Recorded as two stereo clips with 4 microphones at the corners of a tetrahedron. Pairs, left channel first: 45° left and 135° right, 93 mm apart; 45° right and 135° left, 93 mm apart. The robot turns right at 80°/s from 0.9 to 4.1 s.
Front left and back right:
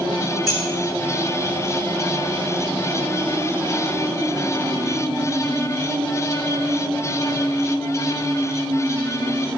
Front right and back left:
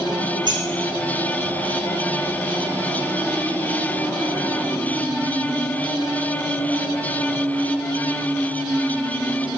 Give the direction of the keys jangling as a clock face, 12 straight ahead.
6 o'clock.